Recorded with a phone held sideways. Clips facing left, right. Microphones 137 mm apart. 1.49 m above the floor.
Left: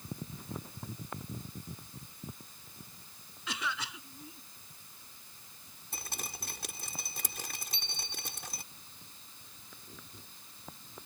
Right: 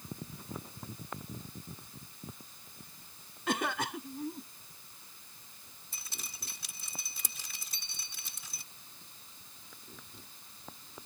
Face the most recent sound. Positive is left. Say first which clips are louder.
# left 8 dB
turn(degrees=-45)  # may be behind; listen again after turning